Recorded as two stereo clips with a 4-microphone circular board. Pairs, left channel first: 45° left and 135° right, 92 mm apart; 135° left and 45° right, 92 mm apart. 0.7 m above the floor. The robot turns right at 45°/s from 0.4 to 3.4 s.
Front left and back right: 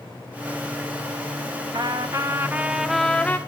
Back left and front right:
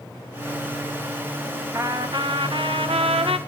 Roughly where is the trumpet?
Right.